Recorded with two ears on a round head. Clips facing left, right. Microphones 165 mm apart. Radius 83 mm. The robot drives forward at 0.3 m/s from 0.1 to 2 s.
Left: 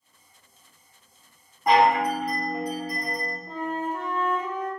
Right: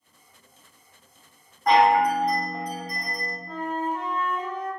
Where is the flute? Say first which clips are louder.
Right 2 dB; 25° left (ahead or behind), 0.6 m.